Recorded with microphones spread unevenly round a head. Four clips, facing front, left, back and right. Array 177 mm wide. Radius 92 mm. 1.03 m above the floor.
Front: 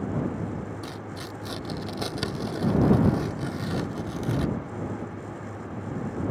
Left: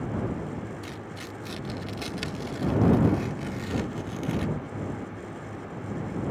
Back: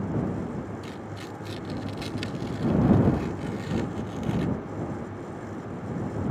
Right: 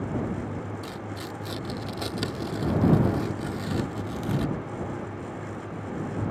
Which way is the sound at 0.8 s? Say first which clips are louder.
Right 3 dB, front 1 dB; 25° right.